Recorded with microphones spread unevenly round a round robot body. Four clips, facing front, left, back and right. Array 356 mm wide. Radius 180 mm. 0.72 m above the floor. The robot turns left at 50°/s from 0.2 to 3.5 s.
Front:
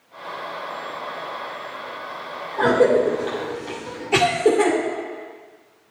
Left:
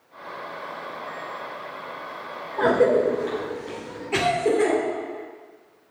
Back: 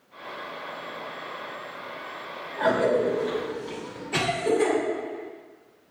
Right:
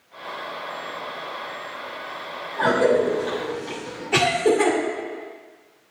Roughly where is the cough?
Ahead left.